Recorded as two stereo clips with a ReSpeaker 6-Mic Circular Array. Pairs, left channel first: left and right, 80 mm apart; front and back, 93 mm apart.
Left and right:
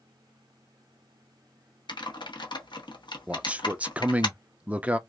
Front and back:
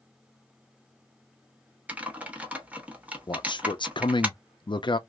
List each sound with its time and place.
1.9 s typing on a keyboard: 105° left, 0.9 m
3.3 s a man speaking: 20° right, 0.5 m